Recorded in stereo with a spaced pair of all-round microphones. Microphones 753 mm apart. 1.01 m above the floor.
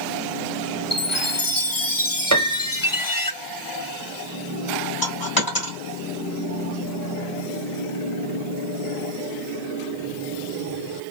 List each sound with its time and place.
0.9 s a chime: 30° left (ahead or behind), 0.7 m
2.3 s a piano: 25° right (ahead or behind), 0.6 m
5.0 s a dropped coin: 60° left (ahead or behind), 2.0 m